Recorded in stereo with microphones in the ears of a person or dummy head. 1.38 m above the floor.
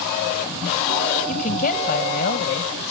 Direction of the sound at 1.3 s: 40° left (ahead or behind).